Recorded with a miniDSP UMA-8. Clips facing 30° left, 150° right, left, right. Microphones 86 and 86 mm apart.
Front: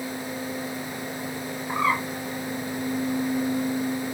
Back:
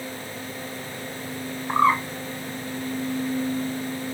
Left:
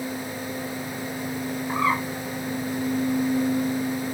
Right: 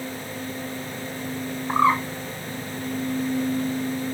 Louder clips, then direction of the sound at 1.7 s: Back 5 dB, right 5 dB; 120° right.